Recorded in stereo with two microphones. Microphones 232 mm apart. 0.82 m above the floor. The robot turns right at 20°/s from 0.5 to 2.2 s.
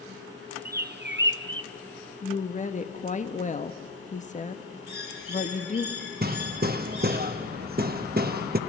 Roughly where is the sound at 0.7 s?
Right.